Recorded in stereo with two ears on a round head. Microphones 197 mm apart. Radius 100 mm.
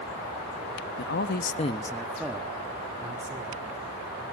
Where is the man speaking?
50° left (ahead or behind), 1.0 m; by 3.7 s 20° right (ahead or behind), 2.5 m.